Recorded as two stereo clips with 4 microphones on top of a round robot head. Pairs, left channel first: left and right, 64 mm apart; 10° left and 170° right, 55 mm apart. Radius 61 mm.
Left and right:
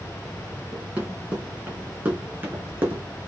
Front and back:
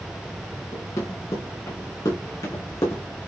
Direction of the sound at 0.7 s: 20° right.